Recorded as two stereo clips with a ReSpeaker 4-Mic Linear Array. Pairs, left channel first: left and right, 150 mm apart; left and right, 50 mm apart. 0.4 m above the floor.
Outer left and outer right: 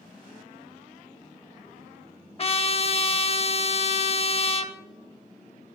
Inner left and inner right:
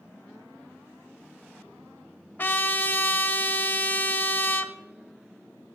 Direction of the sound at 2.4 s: 40° left (ahead or behind).